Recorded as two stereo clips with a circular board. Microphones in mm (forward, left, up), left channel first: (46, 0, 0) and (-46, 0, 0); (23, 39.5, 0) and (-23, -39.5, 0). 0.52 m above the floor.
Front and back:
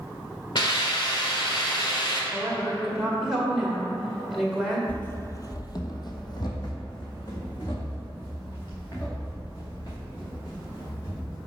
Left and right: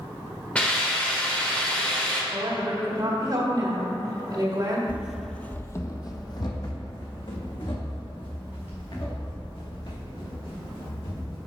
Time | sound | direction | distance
0.6 | a hiss | 15° right | 1.3 m
2.3 | a woman speaking | 90° right | 1.9 m
4.9 | running footsteps | 60° right | 0.6 m